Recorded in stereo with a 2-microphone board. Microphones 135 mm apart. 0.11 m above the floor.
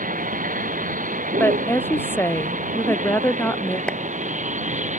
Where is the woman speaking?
15° left (ahead or behind).